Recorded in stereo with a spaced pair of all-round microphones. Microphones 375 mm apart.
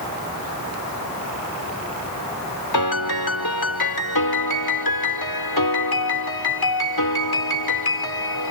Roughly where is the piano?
Left.